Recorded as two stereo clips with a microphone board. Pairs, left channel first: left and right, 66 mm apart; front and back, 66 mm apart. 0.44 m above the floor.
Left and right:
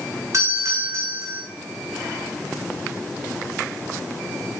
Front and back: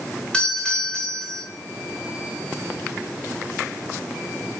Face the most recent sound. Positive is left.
turn(degrees=-70)